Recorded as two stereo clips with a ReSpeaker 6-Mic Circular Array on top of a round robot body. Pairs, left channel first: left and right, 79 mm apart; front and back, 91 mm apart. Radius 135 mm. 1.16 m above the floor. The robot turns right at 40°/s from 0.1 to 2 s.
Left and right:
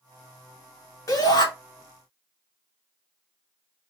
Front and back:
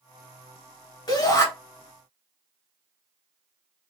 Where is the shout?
35° left, 1.7 m; by 1.5 s 50° left, 1.7 m.